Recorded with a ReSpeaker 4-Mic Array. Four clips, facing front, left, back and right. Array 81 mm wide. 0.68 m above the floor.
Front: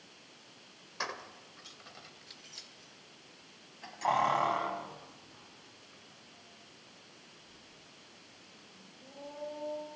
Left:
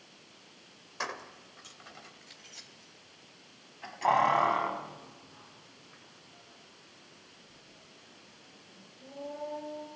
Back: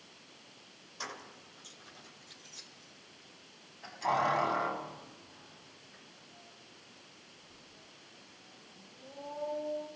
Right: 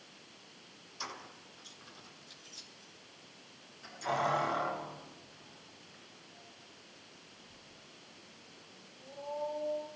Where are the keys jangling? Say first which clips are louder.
Left 7 dB, front 4 dB; 60° left, 2.5 m; by 9.9 s 90° left, 8.5 m.